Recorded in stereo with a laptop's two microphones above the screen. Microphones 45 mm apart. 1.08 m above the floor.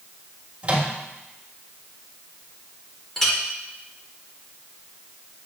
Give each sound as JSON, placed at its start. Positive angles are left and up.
{"t": 0.6, "sound": "a microwave", "side_deg": -25, "distance_m": 1.6}
{"t": 3.2, "sound": "a clink", "side_deg": 5, "distance_m": 1.6}